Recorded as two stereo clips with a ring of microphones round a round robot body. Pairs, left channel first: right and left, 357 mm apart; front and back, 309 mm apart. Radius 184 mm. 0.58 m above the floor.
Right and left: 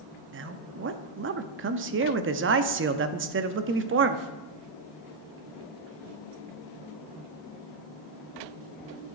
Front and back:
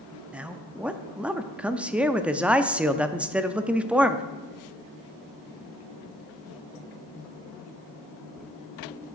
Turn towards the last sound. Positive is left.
turn(degrees=95)